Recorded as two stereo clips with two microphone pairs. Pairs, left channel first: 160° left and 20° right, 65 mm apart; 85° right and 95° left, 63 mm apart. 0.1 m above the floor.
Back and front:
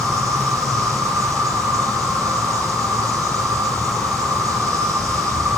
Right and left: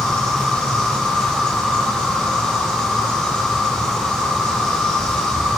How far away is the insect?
About 5.5 m.